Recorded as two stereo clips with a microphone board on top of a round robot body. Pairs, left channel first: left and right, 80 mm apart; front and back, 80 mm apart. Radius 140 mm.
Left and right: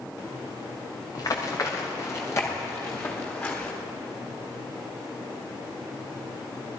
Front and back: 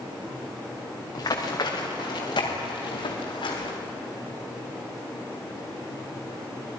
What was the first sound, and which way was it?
Running footsteps, 45° left.